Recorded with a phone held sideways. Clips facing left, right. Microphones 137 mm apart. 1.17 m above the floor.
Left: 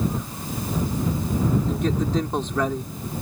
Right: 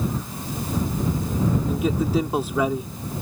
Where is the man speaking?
10° right (ahead or behind).